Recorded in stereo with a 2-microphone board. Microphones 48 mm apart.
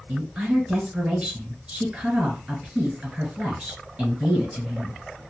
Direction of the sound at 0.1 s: 25° right (ahead or behind).